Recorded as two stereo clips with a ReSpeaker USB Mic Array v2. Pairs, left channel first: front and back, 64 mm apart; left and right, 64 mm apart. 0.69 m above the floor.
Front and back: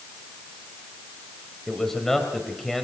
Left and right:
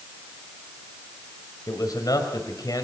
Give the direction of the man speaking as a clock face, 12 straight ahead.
9 o'clock.